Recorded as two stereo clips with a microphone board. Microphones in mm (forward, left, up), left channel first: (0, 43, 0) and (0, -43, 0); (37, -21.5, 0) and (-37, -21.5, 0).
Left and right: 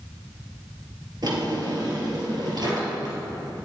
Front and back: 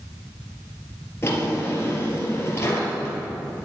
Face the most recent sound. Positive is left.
turn(degrees=-55)